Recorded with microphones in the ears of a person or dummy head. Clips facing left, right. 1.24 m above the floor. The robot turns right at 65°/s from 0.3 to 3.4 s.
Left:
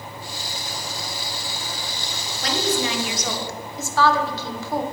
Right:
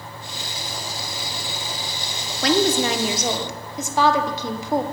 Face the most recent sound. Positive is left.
turn(degrees=-25)